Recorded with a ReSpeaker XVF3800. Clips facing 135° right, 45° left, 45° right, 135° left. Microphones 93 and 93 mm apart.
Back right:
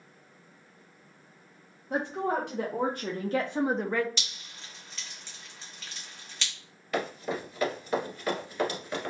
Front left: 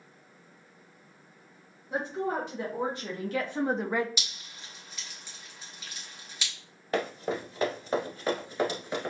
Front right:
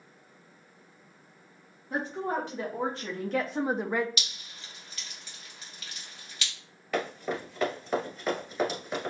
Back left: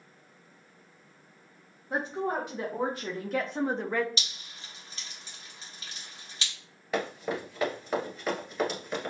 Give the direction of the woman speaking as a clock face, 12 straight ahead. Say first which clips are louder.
Back right 2 dB, back left 1 dB; 5 o'clock.